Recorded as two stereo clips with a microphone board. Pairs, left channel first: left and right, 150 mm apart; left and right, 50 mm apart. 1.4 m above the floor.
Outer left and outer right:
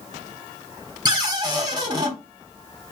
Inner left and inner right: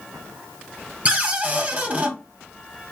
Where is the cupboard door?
30° right (ahead or behind), 0.7 m.